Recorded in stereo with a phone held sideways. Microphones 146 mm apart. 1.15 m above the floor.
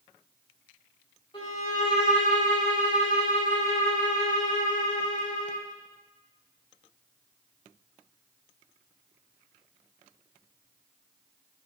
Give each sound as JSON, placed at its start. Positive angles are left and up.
{"t": 1.3, "sound": "a violin", "side_deg": 35, "distance_m": 2.5}